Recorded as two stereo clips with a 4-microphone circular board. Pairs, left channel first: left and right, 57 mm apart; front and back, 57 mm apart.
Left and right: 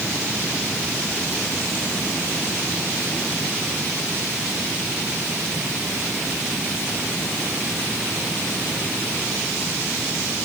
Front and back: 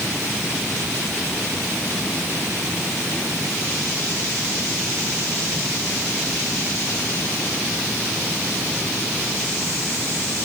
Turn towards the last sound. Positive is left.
No sound to turn to.